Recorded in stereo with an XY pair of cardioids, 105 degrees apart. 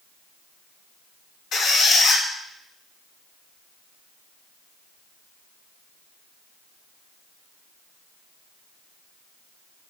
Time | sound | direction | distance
1.5 | a squeak | 70° left | 1.0 m